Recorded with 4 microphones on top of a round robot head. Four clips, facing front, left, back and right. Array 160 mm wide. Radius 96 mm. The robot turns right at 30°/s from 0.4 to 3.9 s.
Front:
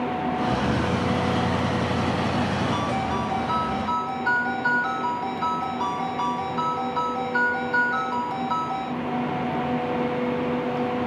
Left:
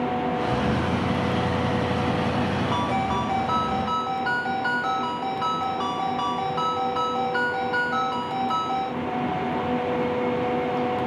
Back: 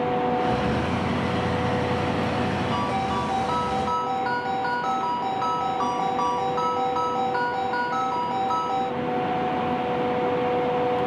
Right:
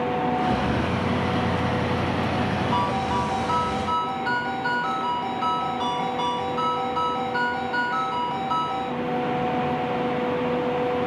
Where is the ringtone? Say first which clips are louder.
Right 2 dB, even; 115° left, 1.4 m; by 8.9 s 155° left, 1.4 m.